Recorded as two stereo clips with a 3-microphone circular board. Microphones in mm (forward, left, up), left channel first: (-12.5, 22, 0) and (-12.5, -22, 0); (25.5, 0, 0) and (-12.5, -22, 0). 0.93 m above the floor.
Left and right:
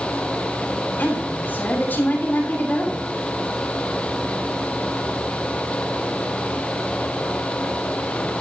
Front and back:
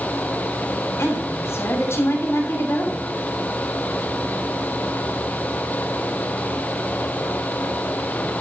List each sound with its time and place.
1.0 s a woman speaking: 50° left, 7 m